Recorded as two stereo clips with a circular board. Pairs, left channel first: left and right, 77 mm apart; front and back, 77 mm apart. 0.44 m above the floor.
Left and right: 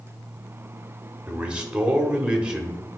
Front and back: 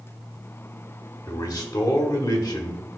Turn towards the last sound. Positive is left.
turn(degrees=-20)